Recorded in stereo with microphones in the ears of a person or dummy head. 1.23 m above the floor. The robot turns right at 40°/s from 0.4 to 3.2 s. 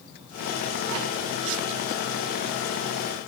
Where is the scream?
I don't hear a scream.